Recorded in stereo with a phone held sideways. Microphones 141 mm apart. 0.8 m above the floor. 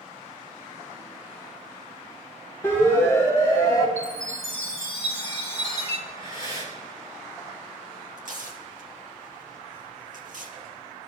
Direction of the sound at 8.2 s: 65° right (ahead or behind).